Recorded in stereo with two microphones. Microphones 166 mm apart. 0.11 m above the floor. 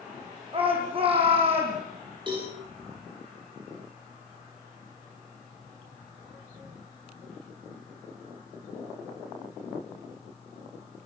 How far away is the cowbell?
About 7.5 m.